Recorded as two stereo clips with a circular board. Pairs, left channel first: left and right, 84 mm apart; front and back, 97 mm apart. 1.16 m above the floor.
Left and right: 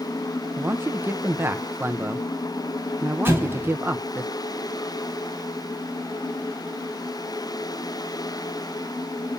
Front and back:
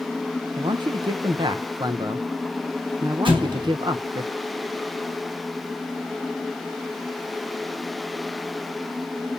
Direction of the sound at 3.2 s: 150° right.